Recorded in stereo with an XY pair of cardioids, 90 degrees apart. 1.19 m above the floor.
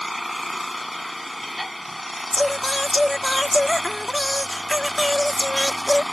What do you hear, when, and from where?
0.0 s an engine running: 10° left
2.3 s singing: 15° left